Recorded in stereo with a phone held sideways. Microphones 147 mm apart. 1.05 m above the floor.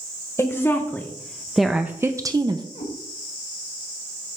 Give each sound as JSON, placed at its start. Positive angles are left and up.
{"t": 0.4, "sound": "a woman speaking", "side_deg": 20, "distance_m": 1.0}
{"t": 2.8, "sound": "a cat meowing", "side_deg": 70, "distance_m": 1.9}